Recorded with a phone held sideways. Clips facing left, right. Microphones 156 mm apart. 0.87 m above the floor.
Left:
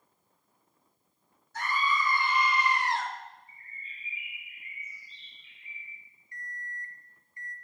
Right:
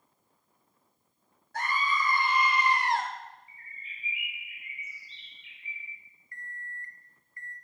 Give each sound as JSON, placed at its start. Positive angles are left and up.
{"t": 1.5, "sound": "a scream", "side_deg": -65, "distance_m": 3.5}
{"t": 3.5, "sound": "a bird", "side_deg": -75, "distance_m": 0.9}
{"t": 6.3, "sound": "an alarm clock", "side_deg": 20, "distance_m": 0.7}